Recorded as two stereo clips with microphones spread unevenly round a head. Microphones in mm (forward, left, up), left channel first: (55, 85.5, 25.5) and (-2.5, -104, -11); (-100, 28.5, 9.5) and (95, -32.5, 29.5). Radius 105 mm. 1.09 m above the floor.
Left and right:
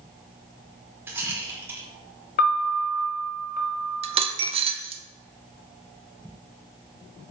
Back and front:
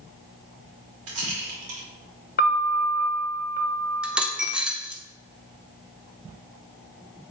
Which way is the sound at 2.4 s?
125° left.